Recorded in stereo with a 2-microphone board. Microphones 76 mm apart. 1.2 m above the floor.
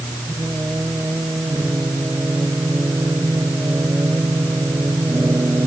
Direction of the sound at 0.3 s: 30° right (ahead or behind).